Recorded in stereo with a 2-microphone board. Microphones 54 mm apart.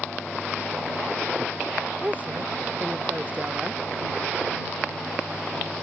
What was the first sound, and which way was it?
A woman speaking, 30° right (ahead or behind).